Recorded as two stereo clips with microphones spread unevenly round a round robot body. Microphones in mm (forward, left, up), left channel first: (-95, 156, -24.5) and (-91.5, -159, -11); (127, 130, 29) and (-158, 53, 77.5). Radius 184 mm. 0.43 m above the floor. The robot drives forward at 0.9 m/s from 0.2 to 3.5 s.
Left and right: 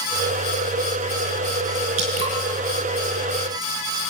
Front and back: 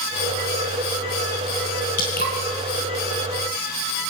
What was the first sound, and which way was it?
Dripping, 50° right.